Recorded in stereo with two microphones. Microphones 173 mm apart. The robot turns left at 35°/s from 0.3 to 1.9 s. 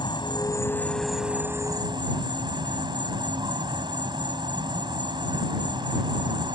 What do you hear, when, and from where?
0.0 s an insect: 30° left; by 6.6 s 30° right